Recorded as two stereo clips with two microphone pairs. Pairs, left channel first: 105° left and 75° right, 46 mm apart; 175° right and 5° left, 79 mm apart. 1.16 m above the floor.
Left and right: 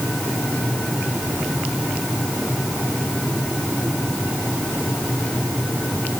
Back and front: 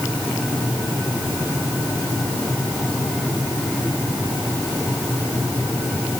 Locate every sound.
Only background noise.